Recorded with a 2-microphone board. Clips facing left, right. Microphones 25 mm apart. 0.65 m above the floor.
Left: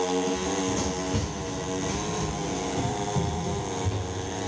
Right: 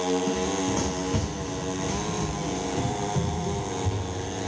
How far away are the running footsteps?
About 1.8 m.